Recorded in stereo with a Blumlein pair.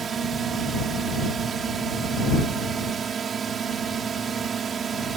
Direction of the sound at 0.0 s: 20° right.